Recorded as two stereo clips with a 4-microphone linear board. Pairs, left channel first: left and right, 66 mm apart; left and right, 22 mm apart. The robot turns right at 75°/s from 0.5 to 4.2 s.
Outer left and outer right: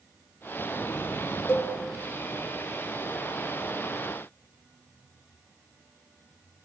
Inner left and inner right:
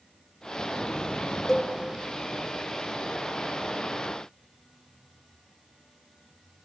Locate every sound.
1.5 s a cowbell: 20° left (ahead or behind), 0.8 m; by 1.7 s 25° left (ahead or behind), 0.8 m